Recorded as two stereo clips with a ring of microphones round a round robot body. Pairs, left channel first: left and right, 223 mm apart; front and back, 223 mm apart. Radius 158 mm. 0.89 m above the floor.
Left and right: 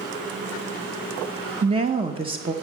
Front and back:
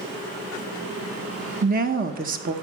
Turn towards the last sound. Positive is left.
turn(degrees=-150)